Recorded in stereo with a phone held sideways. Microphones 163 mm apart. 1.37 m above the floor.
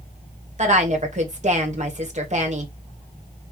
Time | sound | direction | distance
0.6 | a woman speaking | 45° right (ahead or behind) | 1.3 m